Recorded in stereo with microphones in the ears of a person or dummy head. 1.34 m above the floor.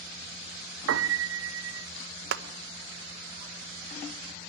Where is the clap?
65° right (ahead or behind), 1.2 m.